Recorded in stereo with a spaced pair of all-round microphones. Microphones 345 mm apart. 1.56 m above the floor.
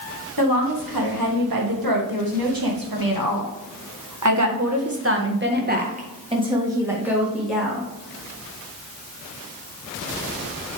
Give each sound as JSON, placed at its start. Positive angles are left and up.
{"t": 0.4, "sound": "a woman speaking", "side_deg": -75, "distance_m": 2.5}